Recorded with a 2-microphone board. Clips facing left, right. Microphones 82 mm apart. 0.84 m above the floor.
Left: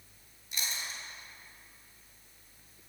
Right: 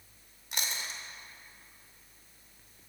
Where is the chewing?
70° right (ahead or behind), 1.1 m.